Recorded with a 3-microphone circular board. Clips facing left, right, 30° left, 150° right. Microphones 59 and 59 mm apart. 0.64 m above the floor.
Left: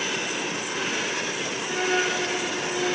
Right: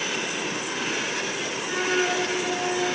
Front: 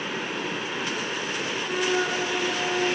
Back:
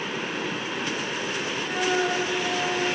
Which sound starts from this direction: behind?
A flute, at 1.6 s.